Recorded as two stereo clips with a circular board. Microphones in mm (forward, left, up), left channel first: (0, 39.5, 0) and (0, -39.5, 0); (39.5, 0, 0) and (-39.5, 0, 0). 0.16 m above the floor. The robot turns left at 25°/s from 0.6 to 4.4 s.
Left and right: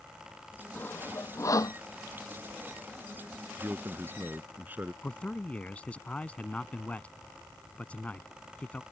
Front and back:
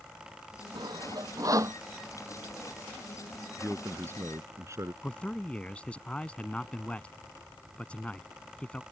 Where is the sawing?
155° left; by 1.8 s 130° left.